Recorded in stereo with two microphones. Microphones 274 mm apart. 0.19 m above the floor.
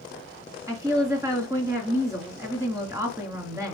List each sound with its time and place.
0.7 s a woman speaking: 10° right (ahead or behind), 2 m